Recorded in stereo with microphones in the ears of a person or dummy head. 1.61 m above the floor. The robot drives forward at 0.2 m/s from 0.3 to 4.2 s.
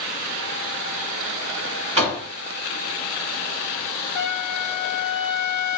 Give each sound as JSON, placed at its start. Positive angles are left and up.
{"t": 2.0, "sound": "a door slam", "side_deg": -35, "distance_m": 1.3}
{"t": 4.2, "sound": "a trumpet", "side_deg": 45, "distance_m": 0.5}